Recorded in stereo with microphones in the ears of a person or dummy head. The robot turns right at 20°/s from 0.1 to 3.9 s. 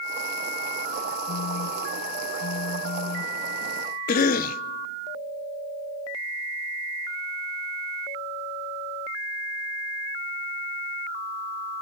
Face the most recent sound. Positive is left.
turn(degrees=55)  # may be behind; listen again after turning